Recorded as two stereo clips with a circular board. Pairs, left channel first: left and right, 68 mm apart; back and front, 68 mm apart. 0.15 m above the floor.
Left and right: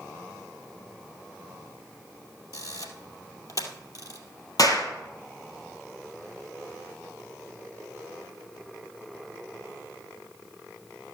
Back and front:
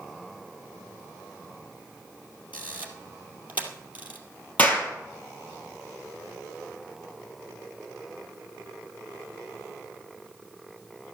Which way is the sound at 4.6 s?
115° left.